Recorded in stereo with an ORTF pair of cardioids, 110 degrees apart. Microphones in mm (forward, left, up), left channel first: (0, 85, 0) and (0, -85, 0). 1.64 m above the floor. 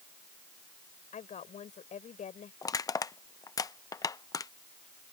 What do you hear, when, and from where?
1.1 s a woman speaking: 45° left
2.6 s crushing: 20° left